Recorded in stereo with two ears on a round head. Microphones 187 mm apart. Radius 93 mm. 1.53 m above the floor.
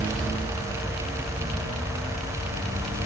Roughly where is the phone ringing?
I don't hear a phone ringing.